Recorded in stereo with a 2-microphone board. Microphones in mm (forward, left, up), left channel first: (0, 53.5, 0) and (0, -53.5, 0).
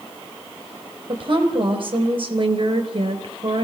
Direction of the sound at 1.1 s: 50° right (ahead or behind).